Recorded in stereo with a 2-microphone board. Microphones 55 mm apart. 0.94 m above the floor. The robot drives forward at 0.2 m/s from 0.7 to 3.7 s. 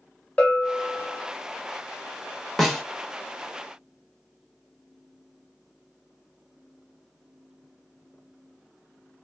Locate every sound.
0.4 s a bell: 25° left (ahead or behind), 0.8 m
2.6 s a snare drum: centre (ahead or behind), 1.0 m